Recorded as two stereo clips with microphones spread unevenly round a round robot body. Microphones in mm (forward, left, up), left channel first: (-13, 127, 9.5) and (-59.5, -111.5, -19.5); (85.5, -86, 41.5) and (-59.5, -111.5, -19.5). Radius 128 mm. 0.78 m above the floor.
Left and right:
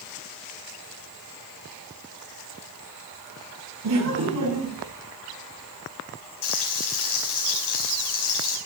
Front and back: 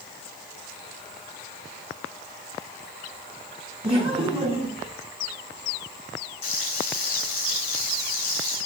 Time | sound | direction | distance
3.8 | laughter | 115° right | 8.5 m
6.4 | frying | 60° left | 5 m